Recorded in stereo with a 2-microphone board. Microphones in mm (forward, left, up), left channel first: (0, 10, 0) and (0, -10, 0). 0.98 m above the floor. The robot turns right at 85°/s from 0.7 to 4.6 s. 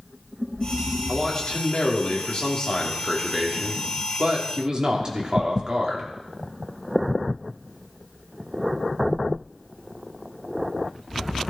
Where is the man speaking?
25° left, 3 m; by 6.1 s 40° right, 3 m.